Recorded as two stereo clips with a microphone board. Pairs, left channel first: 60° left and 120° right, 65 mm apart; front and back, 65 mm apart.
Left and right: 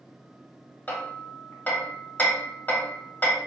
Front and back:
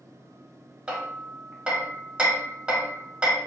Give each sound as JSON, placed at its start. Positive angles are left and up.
{"t": 0.9, "sound": "hammering", "azimuth_deg": 115, "distance_m": 1.2}